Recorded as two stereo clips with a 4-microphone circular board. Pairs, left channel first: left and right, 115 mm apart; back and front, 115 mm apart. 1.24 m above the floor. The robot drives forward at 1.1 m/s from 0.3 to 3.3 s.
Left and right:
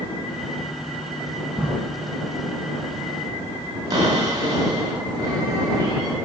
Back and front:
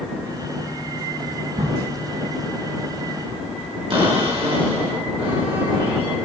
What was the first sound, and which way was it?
A crack, 10° right.